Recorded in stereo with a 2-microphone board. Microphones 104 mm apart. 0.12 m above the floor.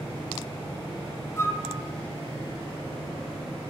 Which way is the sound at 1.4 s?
25° left (ahead or behind).